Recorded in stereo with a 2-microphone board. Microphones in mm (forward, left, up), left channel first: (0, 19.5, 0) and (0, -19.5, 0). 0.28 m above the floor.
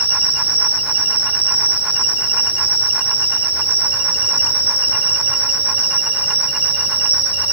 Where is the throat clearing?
No throat clearing in this recording.